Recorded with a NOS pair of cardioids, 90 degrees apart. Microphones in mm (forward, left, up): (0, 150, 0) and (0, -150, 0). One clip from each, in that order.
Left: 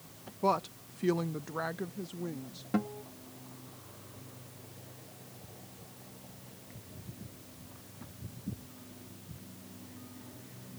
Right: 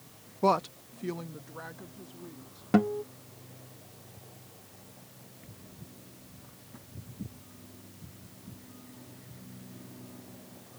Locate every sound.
0.4 s a woman speaking: 30° right; by 2.6 s 60° left
2.7 s a guitar: 50° right